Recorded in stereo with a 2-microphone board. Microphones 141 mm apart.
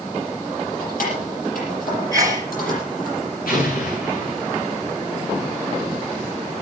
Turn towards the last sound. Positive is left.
turn(degrees=85)